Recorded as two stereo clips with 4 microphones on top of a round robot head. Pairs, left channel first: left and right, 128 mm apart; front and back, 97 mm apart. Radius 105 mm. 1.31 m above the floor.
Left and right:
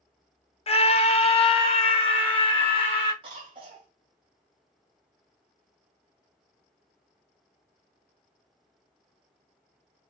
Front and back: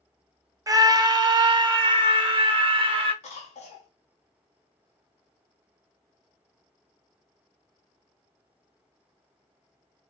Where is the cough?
30° right, 1.2 m.